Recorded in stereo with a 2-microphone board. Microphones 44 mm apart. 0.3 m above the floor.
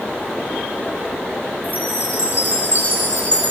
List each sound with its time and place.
1.6 s a chime: 40° right (ahead or behind), 6.5 m